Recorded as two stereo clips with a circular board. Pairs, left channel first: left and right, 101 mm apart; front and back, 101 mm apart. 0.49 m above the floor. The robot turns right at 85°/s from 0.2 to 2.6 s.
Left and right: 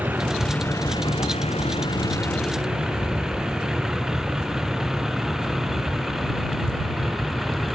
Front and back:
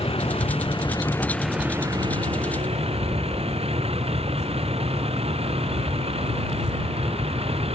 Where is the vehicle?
15° right; by 7.8 s straight behind.